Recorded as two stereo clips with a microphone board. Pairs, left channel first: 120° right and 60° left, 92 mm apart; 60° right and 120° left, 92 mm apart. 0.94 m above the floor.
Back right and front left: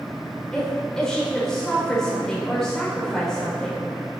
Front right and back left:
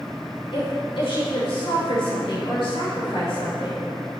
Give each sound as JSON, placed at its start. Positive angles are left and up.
{"t": 0.5, "sound": "a woman speaking", "azimuth_deg": -35, "distance_m": 3.0}